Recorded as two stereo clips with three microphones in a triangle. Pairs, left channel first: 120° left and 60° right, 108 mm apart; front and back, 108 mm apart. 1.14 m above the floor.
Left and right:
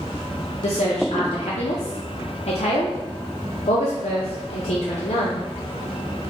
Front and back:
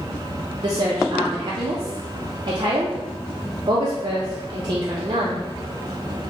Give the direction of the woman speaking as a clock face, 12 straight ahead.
8 o'clock.